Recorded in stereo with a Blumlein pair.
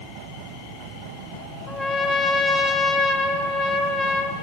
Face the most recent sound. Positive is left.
turn(degrees=20)